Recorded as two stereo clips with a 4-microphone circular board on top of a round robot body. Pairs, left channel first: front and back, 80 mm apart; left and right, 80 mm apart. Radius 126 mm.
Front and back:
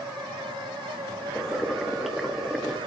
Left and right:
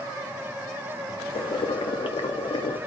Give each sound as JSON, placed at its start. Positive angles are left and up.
{"t": 1.3, "sound": "boiling", "azimuth_deg": 90, "distance_m": 1.2}